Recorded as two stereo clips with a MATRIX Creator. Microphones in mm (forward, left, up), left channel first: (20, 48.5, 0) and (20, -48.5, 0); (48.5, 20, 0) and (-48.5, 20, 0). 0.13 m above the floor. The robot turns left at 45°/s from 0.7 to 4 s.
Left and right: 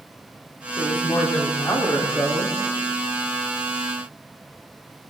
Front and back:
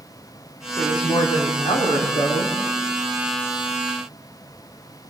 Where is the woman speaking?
60° left, 8.5 m; by 2.5 s 20° right, 8.5 m.